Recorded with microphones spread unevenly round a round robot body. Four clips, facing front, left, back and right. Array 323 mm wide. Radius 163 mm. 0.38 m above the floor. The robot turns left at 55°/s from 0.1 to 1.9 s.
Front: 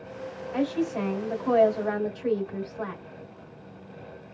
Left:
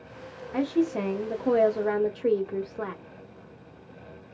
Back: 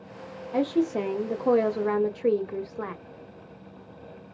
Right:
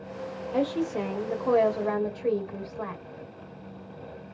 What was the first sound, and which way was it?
A woman speaking, 155° right.